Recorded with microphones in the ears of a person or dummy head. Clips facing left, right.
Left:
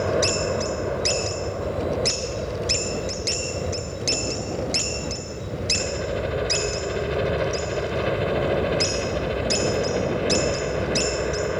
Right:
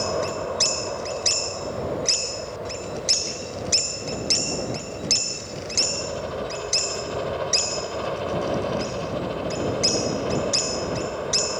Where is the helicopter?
25° left (ahead or behind).